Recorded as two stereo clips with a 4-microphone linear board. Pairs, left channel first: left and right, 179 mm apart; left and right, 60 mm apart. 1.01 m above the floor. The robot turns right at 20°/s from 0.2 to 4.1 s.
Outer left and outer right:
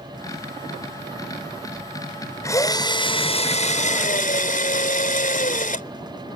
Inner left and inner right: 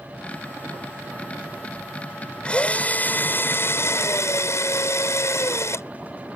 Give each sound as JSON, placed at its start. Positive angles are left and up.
{"t": 2.4, "sound": "a drill", "azimuth_deg": 15}